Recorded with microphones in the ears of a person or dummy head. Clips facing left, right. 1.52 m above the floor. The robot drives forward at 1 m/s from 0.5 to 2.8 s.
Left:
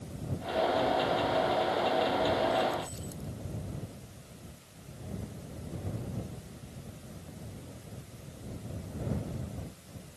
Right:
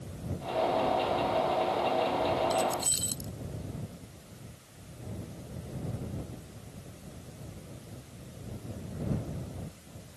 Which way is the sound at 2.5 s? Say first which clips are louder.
Even; 90° right.